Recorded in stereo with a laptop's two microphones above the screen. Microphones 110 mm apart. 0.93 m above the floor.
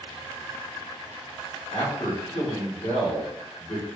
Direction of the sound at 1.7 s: 60° left (ahead or behind).